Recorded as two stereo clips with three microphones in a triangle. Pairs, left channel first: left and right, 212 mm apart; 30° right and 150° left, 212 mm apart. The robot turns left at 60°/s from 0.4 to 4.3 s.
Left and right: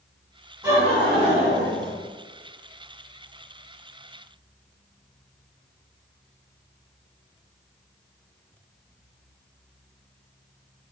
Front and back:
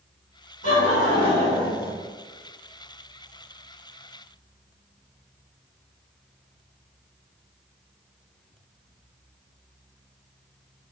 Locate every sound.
0.6 s laughter: 20° right, 1.7 m; by 2.0 s 100° right, 1.7 m